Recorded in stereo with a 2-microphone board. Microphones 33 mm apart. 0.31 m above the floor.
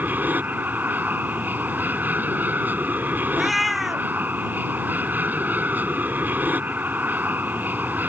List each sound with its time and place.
0.0 s an aircraft: 60° right (ahead or behind)
3.4 s a cat meowing: centre (ahead or behind)